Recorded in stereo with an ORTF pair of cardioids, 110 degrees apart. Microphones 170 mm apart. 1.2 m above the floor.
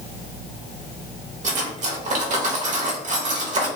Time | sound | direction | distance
1.4 | cutlery clinking | 50° right | 0.9 m